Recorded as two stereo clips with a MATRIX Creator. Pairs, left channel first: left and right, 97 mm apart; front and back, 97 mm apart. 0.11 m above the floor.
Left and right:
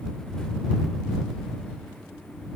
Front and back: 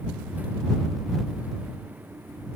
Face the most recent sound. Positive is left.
No sound to turn to.